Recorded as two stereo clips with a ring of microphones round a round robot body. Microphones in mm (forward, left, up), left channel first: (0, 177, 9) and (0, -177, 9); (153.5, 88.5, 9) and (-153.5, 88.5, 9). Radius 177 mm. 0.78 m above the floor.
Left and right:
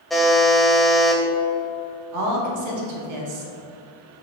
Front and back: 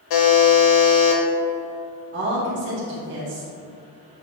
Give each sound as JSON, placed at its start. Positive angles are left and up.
{"t": 0.1, "sound": "a buzzer", "azimuth_deg": 0, "distance_m": 1.1}
{"t": 2.1, "sound": "a woman speaking", "azimuth_deg": -125, "distance_m": 1.4}